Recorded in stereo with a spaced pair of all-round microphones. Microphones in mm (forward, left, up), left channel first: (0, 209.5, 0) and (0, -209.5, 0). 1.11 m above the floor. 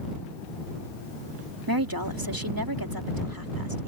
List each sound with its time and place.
1.7 s a woman speaking: 55° right (ahead or behind)